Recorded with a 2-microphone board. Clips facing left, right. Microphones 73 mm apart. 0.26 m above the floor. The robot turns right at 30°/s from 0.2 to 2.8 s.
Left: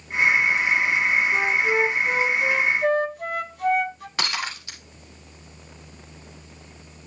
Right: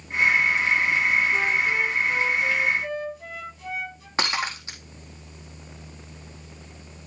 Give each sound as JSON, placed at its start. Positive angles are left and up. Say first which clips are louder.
{"t": 1.3, "sound": "a flute", "louder": "left 2 dB", "azimuth_deg": 25, "distance_m": 1.0}
{"t": 4.2, "sound": "breaking glass", "louder": "right 2 dB", "side_deg": -25, "distance_m": 4.0}